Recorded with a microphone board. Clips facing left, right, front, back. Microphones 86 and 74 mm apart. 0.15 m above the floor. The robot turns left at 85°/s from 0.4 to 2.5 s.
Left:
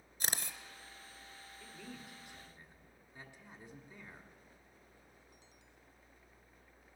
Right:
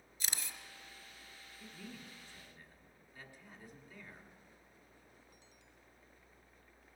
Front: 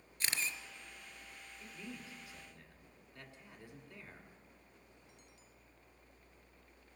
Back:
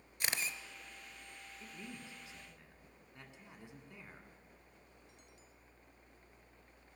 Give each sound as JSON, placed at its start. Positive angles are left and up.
{"t": 0.2, "sound": "a camera shutter", "azimuth_deg": 110, "distance_m": 0.7}
{"t": 1.6, "sound": "a man speaking", "azimuth_deg": -155, "distance_m": 1.5}